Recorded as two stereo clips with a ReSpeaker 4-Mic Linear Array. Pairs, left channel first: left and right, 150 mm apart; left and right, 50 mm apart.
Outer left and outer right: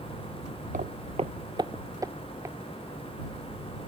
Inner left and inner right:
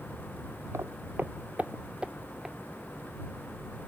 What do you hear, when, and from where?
0.7 s footsteps: 60° right (ahead or behind); by 2.5 s 15° right (ahead or behind)